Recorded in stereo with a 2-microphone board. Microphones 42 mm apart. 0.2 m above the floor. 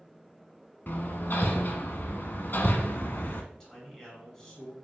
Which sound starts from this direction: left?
Hammering, at 0.9 s.